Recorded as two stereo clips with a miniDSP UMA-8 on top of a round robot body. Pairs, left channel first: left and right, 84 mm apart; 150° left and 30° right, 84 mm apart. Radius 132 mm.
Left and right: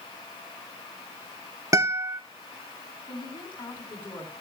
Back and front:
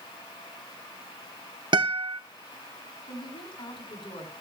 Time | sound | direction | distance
1.7 | a guitar | 40° right | 1.5 m
3.1 | a woman speaking | 115° left | 5.5 m